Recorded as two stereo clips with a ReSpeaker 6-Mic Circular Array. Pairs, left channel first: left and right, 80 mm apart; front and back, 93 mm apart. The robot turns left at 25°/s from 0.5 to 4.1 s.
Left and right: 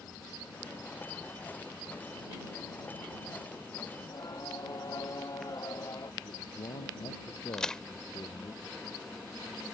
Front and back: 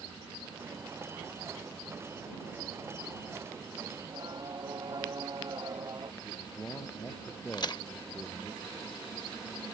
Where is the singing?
140° left; by 6.1 s 135° left.